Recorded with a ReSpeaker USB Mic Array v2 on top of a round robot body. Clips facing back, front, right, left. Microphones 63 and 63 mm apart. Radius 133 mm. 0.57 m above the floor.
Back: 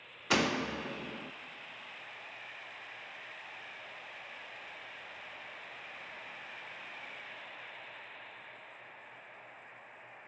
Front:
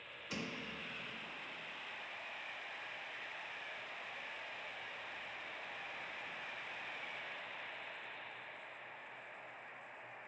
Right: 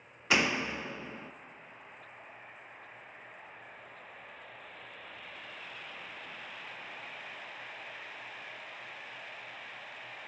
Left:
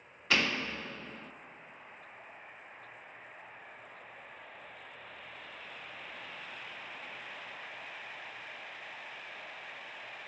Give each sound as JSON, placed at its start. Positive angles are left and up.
{"t": 0.3, "sound": "a door slam", "azimuth_deg": -165, "distance_m": 0.6}